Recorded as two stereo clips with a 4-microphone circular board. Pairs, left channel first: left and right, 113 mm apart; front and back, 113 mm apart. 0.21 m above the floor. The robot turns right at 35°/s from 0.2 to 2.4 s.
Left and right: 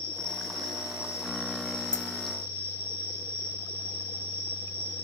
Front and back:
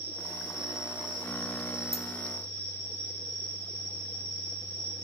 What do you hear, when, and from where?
0.0 s an insect: 155° right, 10 m; by 5.0 s 80° right, 10 m
1.9 s a dropped coin: 20° right, 1.2 m; by 2.1 s 15° right, 1.2 m